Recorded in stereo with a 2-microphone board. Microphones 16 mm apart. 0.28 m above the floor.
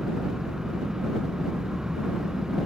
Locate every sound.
0.0 s an engine running: 40° right (ahead or behind)